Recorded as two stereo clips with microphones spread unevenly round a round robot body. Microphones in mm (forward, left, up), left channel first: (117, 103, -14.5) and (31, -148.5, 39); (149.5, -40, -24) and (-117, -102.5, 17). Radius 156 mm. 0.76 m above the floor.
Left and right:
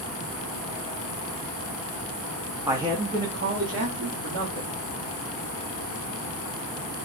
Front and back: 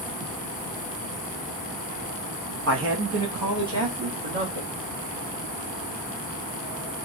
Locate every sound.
2.7 s a man speaking: 160° left, 0.7 m; by 4.7 s 150° right, 1.7 m